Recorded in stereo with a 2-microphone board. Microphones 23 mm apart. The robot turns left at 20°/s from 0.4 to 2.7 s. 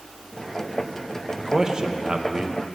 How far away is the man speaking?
About 1.0 m.